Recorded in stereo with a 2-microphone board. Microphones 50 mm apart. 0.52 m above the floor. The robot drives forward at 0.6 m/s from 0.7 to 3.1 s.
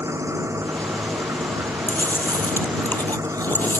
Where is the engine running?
75° right (ahead or behind).